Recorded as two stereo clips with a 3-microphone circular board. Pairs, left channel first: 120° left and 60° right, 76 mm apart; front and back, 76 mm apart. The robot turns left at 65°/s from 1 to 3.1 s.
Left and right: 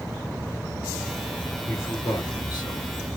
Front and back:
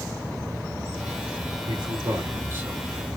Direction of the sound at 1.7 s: Straight behind.